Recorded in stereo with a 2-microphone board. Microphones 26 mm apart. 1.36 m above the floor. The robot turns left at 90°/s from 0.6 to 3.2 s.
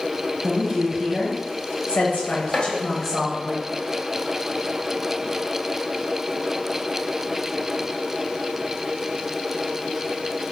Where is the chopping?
45° left (ahead or behind), 1.0 m; by 2.7 s 55° left (ahead or behind), 1.0 m.